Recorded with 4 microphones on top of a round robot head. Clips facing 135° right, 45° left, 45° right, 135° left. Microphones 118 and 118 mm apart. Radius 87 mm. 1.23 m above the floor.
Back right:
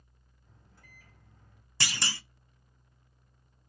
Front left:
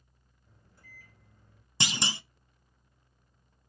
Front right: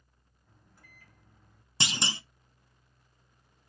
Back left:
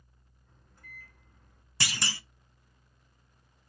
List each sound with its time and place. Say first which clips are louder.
0.5 s a microwave: front left 1 dB, back left 4 dB; 130° right, 4 m
1.8 s a clunk: front left 3 dB, front right 2 dB; 5° right, 0.5 m